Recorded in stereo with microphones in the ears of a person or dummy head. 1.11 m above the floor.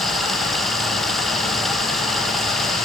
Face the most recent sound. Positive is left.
turn(degrees=5)  # may be behind; listen again after turning